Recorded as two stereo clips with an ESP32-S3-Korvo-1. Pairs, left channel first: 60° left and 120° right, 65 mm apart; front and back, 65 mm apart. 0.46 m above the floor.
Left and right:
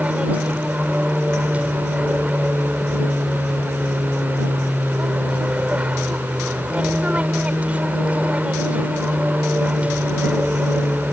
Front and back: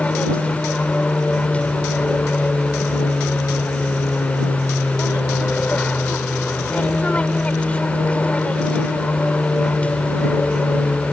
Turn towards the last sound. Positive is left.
turn(degrees=-60)